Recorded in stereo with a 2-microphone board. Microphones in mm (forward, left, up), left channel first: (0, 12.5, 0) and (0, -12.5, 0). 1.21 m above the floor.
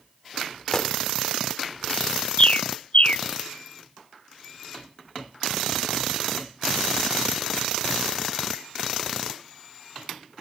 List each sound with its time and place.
0.7 s a gunshot: 35° left (ahead or behind)
2.4 s a bird: 50° left (ahead or behind)